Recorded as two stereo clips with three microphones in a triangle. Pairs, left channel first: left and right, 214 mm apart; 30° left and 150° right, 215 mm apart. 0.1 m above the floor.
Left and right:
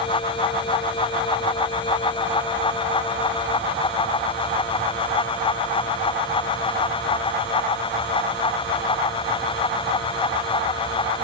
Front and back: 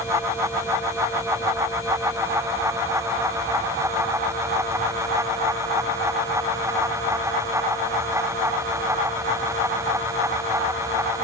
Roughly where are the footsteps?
I don't hear footsteps.